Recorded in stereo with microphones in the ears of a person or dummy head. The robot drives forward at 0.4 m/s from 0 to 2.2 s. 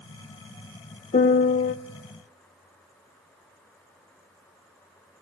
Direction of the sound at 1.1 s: 35° left (ahead or behind).